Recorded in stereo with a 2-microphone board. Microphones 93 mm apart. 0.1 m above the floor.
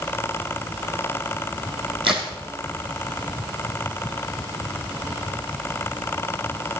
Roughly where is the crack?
Right.